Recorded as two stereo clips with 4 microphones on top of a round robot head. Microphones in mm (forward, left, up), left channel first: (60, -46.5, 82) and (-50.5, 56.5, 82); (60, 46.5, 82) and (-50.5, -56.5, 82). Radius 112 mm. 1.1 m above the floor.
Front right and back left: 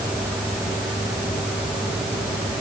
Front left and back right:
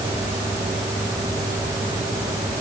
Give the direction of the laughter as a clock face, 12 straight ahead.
I don't hear laughter.